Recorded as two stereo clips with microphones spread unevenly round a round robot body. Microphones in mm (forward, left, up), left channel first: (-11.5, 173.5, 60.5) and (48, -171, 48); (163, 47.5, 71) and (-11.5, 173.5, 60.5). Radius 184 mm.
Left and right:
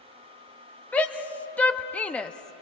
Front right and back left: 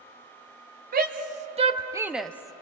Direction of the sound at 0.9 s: 175° right.